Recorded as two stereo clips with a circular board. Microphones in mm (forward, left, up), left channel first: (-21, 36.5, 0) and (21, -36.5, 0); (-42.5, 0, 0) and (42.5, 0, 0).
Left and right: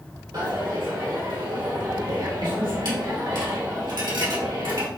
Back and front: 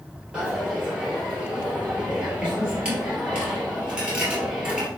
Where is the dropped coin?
80° right, 2 m.